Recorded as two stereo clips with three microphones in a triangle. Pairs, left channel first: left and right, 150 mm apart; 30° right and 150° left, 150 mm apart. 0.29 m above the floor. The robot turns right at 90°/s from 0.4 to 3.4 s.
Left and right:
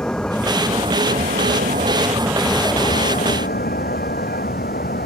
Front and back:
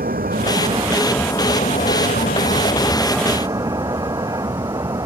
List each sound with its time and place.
0.0 s a vehicle: 175° left; by 5.1 s 85° left